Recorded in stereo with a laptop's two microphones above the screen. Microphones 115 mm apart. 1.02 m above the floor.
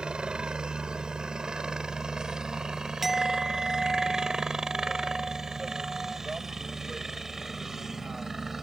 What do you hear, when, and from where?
0.0 s a helicopter: 10° right (ahead or behind); by 8.6 s 5° right (ahead or behind)
3.0 s a clink: centre (ahead or behind)